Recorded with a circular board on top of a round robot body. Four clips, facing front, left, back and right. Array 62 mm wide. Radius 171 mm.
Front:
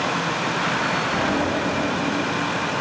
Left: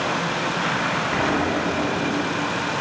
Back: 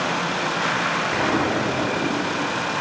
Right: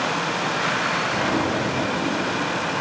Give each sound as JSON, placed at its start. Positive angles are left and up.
{"t": 1.1, "sound": "an explosion", "azimuth_deg": 165, "distance_m": 2.5}